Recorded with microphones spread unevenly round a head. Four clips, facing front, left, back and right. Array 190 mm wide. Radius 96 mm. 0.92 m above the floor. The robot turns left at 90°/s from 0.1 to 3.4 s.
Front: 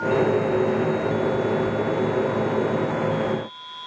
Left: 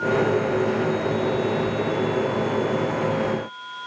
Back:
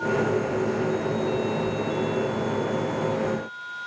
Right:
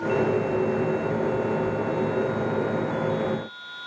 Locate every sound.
Only background noise.